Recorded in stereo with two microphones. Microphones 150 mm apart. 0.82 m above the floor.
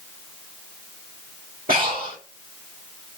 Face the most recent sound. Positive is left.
turn(degrees=-70)  # may be behind; listen again after turning